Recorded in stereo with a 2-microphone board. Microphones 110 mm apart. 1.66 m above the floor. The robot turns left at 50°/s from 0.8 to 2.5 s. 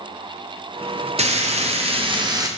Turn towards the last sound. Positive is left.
turn(degrees=-150)